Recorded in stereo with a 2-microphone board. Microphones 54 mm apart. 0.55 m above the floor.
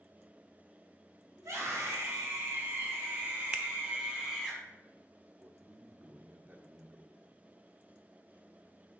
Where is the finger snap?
25° right (ahead or behind), 0.5 m.